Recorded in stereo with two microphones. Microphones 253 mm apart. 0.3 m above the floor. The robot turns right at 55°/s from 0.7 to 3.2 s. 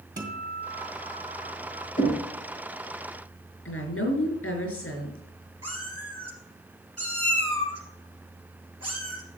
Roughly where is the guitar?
Ahead right.